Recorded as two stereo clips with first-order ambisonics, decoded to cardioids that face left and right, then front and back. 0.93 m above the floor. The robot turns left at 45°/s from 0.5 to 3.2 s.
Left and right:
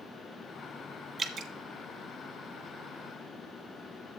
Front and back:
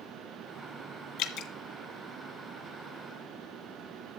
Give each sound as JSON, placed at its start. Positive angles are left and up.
{"t": 1.2, "sound": "dripping", "azimuth_deg": -20, "distance_m": 0.8}